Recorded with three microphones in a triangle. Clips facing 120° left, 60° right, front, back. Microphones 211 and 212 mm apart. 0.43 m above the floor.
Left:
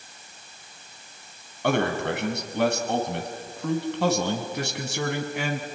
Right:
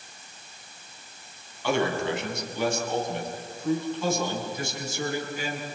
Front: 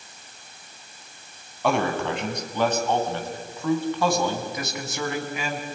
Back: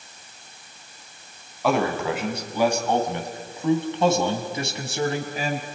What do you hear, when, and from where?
1.6 s a man speaking: 90° left, 4 m; by 5.7 s 130° left, 4 m